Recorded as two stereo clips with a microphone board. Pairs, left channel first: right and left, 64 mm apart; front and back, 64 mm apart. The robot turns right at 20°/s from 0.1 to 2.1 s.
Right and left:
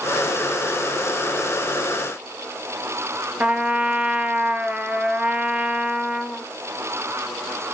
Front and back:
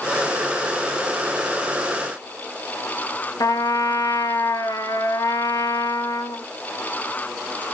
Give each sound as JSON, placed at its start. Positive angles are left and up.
{"t": 3.4, "sound": "a trumpet", "azimuth_deg": 20, "distance_m": 0.9}